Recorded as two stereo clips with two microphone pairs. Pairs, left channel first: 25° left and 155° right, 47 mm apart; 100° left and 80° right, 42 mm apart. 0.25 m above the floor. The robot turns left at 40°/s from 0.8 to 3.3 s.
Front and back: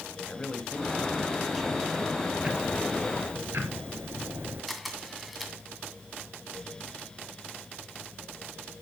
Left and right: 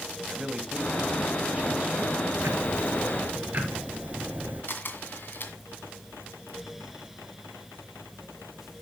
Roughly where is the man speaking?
Ahead right.